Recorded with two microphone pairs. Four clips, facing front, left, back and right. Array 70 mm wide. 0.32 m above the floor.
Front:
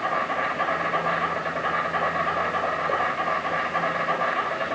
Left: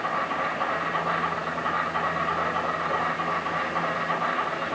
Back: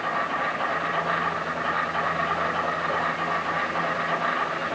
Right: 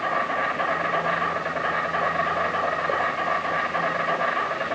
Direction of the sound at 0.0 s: 70° right.